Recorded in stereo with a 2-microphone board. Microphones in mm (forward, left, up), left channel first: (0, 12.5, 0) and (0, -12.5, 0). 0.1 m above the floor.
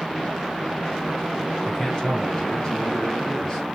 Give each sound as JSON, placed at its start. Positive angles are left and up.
{"t": 1.6, "sound": "a man speaking", "side_deg": 30, "distance_m": 1.5}